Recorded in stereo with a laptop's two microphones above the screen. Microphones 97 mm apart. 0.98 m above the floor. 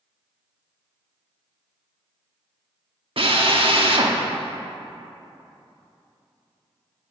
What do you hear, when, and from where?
3.2 s a drill: 60° right (ahead or behind), 0.9 m